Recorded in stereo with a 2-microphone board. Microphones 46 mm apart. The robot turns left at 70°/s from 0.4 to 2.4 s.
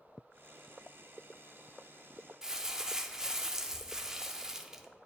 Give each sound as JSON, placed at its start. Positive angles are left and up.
{"t": 2.4, "sound": "crumpling", "side_deg": -15, "distance_m": 0.5}